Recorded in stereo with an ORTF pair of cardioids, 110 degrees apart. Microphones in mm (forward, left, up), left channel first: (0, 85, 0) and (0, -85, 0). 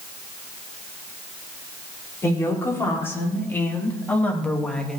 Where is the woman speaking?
15° left, 4 m; by 5.0 s 5° left, 1.7 m.